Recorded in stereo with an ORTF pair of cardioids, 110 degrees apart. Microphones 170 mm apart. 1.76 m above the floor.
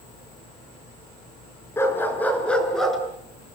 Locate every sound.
1.8 s a dog barking: 15° left, 5.5 m; by 3.0 s straight ahead, 5.5 m